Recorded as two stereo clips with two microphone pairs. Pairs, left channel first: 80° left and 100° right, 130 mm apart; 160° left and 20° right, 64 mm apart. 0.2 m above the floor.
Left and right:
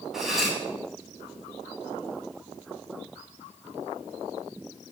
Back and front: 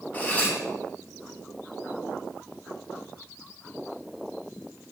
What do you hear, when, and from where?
0.1 s cutlery clinking: 175° left, 0.7 m